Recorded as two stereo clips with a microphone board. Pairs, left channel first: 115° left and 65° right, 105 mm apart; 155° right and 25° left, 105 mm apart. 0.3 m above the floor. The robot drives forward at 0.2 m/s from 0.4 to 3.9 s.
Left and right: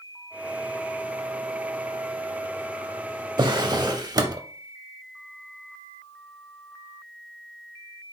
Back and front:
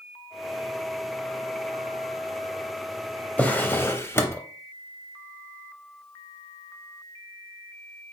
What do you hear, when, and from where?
3.4 s a drawer: 85° right, 0.6 m; by 4.4 s 100° right, 0.6 m